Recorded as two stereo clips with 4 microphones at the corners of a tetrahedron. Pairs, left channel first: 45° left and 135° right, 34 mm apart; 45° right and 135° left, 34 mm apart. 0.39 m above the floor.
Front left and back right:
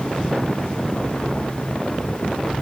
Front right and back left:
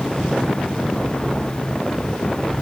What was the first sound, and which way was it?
Only background noise.